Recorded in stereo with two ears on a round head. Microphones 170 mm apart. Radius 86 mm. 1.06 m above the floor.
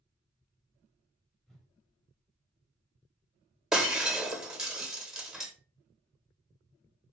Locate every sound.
1.5 s a whoosh: centre (ahead or behind), 1.1 m
3.7 s breaking glass: 5° right (ahead or behind), 0.8 m